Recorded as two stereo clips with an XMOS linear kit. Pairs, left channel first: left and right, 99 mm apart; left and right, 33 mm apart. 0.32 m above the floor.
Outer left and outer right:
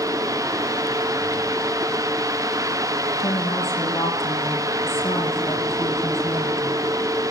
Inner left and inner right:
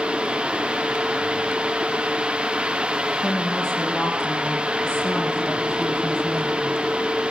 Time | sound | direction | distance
3.2 | a woman speaking | 25° left (ahead or behind) | 10 m